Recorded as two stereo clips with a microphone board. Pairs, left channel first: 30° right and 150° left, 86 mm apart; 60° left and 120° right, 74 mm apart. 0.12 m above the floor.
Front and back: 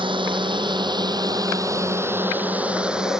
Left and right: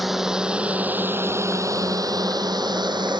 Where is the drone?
150° left; by 3.2 s 125° right.